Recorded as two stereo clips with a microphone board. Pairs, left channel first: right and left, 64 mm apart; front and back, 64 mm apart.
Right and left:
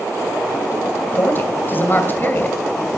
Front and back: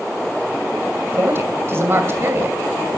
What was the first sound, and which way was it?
A woman speaking, 140° right.